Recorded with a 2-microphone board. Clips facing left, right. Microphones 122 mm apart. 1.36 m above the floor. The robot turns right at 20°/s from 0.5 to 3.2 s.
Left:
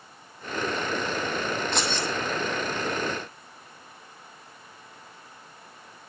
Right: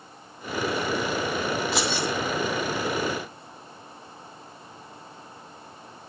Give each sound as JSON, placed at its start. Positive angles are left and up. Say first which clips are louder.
{"t": 1.7, "sound": "keys jangling", "louder": "right 2 dB", "side_deg": -5, "distance_m": 2.5}